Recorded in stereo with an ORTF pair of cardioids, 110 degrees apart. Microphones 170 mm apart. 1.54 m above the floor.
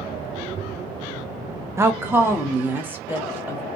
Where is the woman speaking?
15° right, 0.5 m; by 3.6 s 10° right, 2.0 m.